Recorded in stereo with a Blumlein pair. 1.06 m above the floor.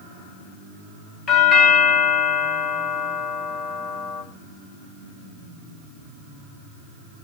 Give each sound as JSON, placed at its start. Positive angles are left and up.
{"t": 1.3, "sound": "a doorbell", "azimuth_deg": 25, "distance_m": 2.0}